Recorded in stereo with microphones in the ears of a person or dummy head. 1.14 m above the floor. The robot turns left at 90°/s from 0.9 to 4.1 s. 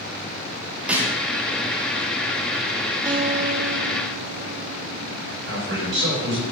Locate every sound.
0.9 s a snare drum: 10° right (ahead or behind), 1.4 m; by 1.2 s 30° right (ahead or behind), 1.4 m
3.0 s a guitar: 20° right, 0.8 m; by 5.6 s 115° right, 0.8 m
5.5 s a man speaking: 55° right (ahead or behind), 4.5 m